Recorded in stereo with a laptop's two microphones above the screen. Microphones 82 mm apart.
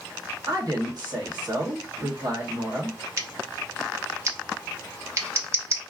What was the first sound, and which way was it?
A woman speaking, 60° right (ahead or behind).